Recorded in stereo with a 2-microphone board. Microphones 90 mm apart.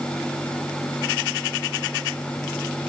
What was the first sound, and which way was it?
Only background noise.